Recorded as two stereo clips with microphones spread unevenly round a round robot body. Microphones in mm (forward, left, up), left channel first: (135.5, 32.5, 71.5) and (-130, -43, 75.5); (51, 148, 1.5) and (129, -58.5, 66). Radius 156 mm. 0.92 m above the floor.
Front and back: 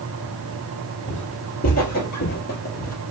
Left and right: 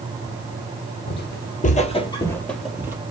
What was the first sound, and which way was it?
Footsteps, 75° left.